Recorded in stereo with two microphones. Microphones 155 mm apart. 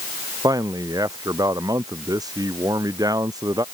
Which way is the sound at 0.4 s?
25° right (ahead or behind).